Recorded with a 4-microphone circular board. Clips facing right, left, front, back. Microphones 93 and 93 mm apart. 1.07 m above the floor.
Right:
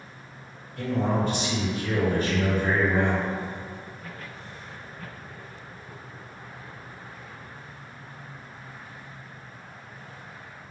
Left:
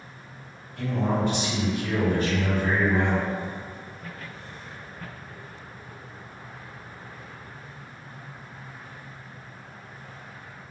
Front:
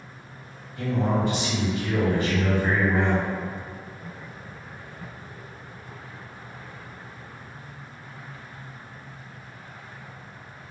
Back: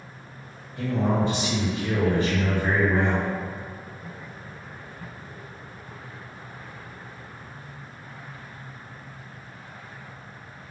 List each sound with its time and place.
0.8 s a man speaking: 135° right, 1.6 m